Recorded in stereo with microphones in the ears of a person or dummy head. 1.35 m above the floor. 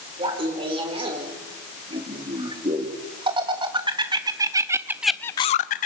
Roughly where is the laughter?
Right.